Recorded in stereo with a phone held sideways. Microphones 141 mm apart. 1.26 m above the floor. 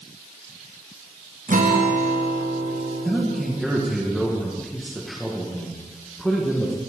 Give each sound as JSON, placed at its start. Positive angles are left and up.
{"t": 1.5, "sound": "a guitar", "side_deg": -70, "distance_m": 0.9}
{"t": 3.0, "sound": "a man speaking", "side_deg": 0, "distance_m": 1.3}